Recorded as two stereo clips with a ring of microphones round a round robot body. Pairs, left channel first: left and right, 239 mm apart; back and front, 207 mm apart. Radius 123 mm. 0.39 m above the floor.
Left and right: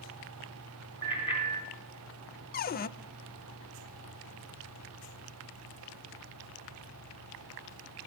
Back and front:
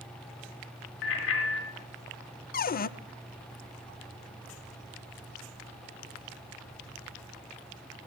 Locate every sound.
1.0 s a bicycle bell: 165° left, 4 m
2.5 s a cupboard door: 140° left, 0.5 m